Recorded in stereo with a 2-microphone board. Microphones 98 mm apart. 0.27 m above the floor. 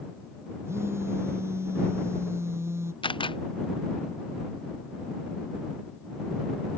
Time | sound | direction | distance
0.7 | a phone buzzing | 25° right (ahead or behind) | ?
3.0 | a camera shutter | 55° left (ahead or behind) | ?